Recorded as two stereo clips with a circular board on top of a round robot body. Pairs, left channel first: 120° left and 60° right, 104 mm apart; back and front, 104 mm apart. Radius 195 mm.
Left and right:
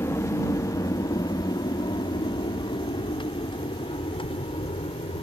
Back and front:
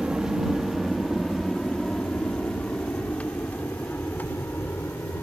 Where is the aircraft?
80° left; by 5.2 s 110° left.